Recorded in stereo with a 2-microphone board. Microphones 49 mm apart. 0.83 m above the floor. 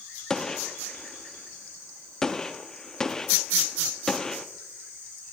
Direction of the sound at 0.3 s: 10° left (ahead or behind).